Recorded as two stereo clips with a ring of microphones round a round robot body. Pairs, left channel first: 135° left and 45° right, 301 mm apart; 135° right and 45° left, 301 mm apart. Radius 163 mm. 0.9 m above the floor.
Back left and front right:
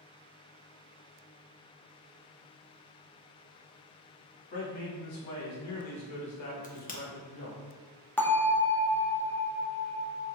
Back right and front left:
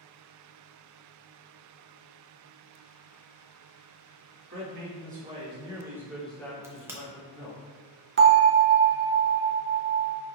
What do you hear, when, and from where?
4.5 s a man speaking: 95° left, 1.7 m; by 7.6 s straight behind, 1.3 m
6.6 s a crack: 115° left, 0.7 m
8.2 s a bell: 55° left, 0.8 m